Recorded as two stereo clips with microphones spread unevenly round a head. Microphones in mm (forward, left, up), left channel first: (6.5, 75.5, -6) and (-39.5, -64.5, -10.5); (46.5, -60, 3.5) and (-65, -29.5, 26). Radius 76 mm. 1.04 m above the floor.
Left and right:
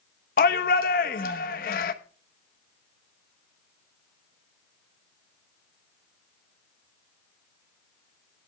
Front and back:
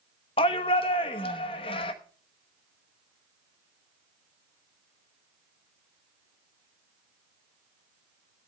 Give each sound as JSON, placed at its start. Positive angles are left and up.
{"t": 0.4, "sound": "a shout", "azimuth_deg": 35, "distance_m": 1.0}